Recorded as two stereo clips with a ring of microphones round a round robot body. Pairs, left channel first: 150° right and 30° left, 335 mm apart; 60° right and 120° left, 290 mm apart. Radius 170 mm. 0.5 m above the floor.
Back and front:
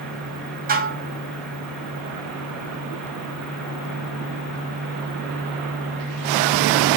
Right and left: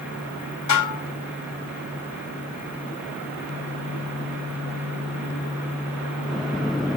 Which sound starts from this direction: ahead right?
Dishes clattering, at 0.7 s.